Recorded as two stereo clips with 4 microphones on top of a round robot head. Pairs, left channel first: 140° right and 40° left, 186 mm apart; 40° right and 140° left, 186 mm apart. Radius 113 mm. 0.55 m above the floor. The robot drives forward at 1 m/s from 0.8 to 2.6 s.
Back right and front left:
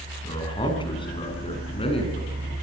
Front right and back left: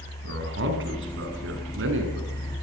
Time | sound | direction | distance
0.2 | a man speaking | 155° left | 6.5 m